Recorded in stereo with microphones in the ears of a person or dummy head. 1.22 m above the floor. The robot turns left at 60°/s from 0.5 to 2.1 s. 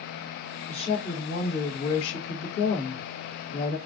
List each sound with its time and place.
0.7 s a woman speaking: 155° left, 1.3 m; by 3.8 s 70° left, 1.3 m